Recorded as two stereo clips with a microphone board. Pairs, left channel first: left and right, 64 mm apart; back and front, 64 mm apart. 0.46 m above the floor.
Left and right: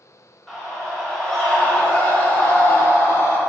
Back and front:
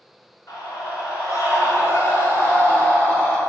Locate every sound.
0.5 s a scream: 175° left, 1.9 m; by 3.4 s 115° left, 1.3 m